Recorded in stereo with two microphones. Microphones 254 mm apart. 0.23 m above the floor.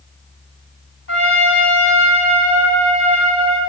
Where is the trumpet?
50° left (ahead or behind), 2 m.